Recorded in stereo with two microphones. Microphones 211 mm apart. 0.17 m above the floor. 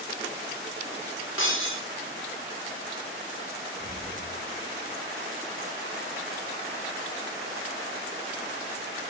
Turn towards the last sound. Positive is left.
turn(degrees=-40)  # may be behind; listen again after turning